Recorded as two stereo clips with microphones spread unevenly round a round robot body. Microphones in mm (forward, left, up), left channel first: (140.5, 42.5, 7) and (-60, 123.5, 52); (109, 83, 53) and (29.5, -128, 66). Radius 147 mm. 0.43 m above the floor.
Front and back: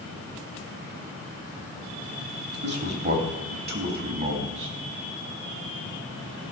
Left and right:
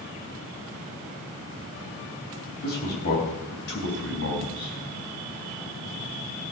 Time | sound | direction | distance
2.6 | a man speaking | 115° left | 3.5 m